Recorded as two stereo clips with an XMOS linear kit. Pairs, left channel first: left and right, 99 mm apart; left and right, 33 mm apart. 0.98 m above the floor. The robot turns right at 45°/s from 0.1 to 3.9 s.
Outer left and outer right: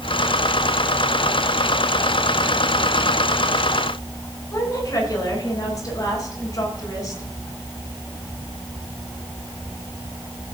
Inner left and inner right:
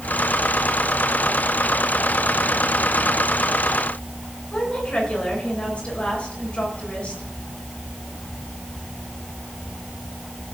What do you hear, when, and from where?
4.5 s a woman speaking: 35° left (ahead or behind), 9.5 m